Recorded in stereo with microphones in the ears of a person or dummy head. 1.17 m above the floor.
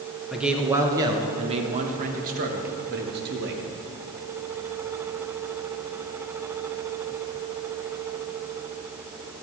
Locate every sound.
0.3 s a man speaking: 5° right (ahead or behind), 1.0 m; by 3.6 s 65° right (ahead or behind), 2.0 m